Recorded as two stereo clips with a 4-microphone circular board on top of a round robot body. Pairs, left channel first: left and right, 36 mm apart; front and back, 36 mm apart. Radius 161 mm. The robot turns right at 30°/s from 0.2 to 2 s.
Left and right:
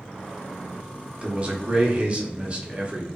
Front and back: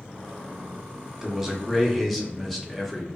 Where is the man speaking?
115° right, 0.9 m; by 3.1 s 90° right, 0.9 m.